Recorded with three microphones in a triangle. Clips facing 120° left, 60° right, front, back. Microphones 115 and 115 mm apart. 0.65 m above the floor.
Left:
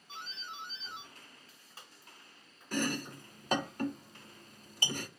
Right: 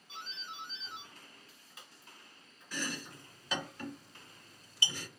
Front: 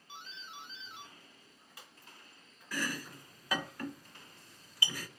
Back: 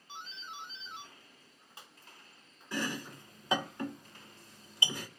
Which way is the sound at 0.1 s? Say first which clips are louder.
Left 1 dB, back 3 dB; 140° left.